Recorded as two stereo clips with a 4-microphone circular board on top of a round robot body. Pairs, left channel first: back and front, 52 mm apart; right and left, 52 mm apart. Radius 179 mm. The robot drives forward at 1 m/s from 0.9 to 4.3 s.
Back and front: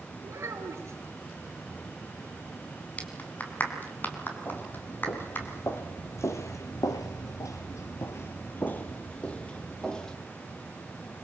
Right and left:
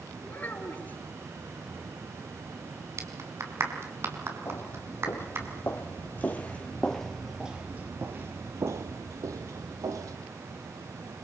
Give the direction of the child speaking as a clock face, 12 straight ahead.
1 o'clock.